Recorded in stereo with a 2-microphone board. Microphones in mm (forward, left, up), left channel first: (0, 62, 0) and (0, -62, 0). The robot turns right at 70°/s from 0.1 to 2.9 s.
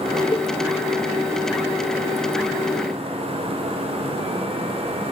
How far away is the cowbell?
About 1.0 m.